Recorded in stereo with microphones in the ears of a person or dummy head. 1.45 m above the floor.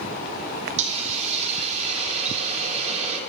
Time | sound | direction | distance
0.8 | a hiss | 30° right (ahead or behind) | 2.0 m